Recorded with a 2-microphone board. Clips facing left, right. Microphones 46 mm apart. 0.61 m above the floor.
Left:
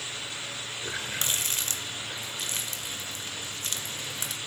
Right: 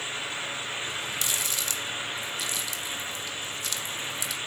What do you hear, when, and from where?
0.8 s a running tap: 45° left (ahead or behind), 1.6 m